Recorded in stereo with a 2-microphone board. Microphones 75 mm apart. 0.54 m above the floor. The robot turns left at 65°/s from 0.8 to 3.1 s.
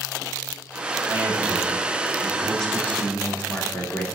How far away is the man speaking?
About 1.1 m.